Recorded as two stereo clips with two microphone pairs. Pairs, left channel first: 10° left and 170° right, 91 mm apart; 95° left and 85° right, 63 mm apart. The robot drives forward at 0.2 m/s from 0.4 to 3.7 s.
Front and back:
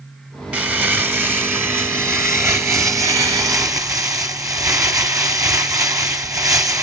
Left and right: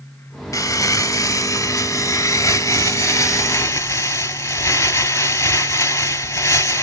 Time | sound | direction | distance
0.5 | crumpling | 115° left | 1.3 m